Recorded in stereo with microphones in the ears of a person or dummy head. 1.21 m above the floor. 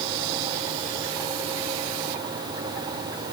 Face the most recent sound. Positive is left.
No sound to turn to.